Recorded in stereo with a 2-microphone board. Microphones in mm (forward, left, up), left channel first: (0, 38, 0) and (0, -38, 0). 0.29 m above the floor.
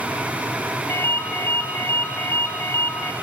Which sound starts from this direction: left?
A ringtone, at 0.9 s.